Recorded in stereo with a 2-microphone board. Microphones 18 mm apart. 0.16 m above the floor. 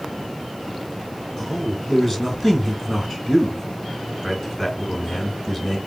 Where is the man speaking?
10° left (ahead or behind), 1.6 m.